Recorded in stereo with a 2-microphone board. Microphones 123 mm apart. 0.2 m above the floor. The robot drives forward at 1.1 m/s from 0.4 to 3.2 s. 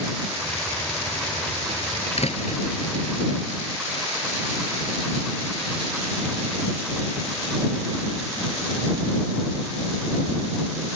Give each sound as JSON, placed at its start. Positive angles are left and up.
{"t": 2.2, "sound": "a door slam", "side_deg": 55}